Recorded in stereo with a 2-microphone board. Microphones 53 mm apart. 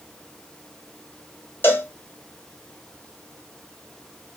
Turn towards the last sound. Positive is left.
turn(degrees=35)  # may be behind; listen again after turning